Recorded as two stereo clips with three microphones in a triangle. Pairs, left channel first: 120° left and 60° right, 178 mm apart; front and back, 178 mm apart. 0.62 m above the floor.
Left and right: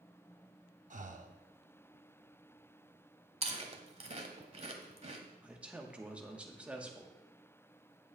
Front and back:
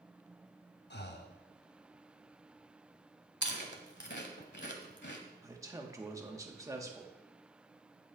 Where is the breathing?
15° right, 0.6 m.